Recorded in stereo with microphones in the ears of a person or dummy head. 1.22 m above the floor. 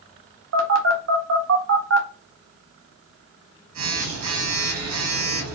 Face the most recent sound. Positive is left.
turn(degrees=-80)